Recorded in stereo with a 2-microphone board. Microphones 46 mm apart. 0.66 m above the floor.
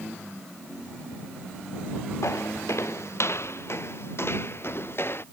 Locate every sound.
2.2 s footsteps: 70° left (ahead or behind); by 5.2 s 50° left (ahead or behind)